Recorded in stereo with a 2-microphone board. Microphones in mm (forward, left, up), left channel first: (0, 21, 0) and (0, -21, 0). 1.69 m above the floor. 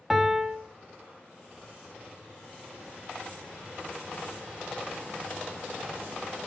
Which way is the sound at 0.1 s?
5° right (ahead or behind).